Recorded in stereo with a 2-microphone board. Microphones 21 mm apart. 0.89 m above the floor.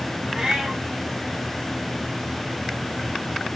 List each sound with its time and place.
0.3 s a cat meowing: 30° right (ahead or behind), 4.5 m